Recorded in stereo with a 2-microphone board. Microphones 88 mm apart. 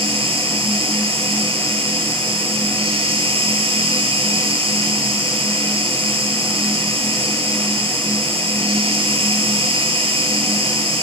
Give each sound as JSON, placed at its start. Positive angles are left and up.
{"t": 0.0, "sound": "an insect", "side_deg": -75, "distance_m": 6.0}